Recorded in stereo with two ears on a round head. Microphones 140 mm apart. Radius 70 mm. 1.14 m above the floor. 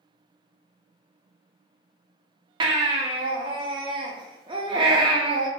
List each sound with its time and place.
2.6 s a baby crying: 30° right (ahead or behind), 0.5 m